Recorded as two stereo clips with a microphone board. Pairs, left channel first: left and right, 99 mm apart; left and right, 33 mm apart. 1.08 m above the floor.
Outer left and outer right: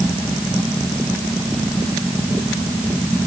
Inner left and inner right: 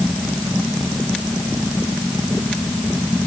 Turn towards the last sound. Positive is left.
No sound to turn to.